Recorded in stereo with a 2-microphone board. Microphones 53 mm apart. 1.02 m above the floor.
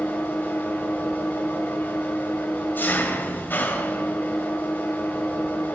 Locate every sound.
0.0 s an engine running: 40° left (ahead or behind), 2.5 m